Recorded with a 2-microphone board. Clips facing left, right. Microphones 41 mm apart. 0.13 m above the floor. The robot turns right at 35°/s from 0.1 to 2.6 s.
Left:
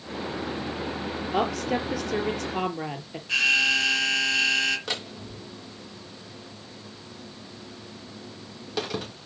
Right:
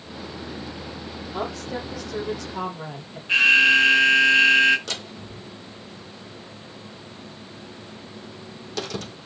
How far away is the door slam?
About 4.5 m.